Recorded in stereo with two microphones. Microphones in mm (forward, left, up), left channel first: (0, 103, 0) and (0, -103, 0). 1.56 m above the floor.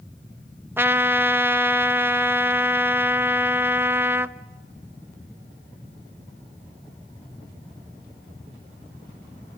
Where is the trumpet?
10° right (ahead or behind), 0.9 m.